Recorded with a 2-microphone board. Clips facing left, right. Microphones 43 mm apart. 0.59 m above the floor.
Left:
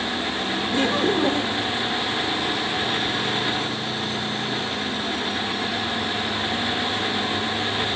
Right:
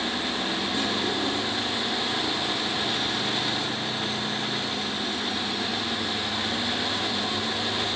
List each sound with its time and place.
0.7 s laughter: 50° left (ahead or behind)